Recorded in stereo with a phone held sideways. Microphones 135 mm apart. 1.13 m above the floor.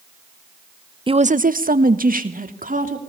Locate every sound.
1.1 s a woman speaking: 35° right (ahead or behind), 0.7 m; by 3.0 s 70° right (ahead or behind), 3 m